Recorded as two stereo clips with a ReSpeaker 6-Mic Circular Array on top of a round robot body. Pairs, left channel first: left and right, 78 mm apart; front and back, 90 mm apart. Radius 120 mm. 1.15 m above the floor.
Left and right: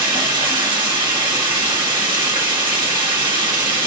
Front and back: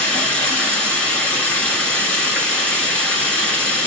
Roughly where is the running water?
Right.